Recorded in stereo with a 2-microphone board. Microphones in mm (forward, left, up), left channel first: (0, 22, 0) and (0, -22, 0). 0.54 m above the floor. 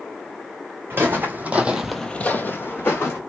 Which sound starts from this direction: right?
Footsteps, at 0.9 s.